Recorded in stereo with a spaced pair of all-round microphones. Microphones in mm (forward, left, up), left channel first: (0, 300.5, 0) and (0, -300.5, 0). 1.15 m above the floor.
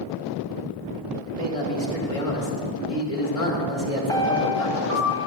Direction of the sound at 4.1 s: 5° left (ahead or behind).